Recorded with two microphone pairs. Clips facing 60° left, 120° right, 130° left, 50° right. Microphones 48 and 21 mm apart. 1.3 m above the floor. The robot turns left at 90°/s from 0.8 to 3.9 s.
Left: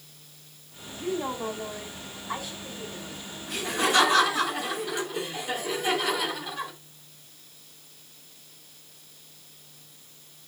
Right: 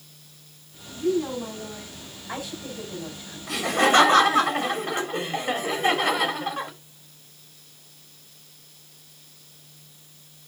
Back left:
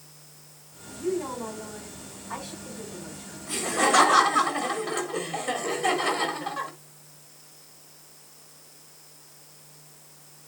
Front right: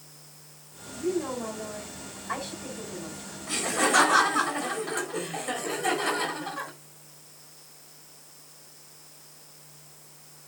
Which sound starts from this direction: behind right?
Laughter, at 3.5 s.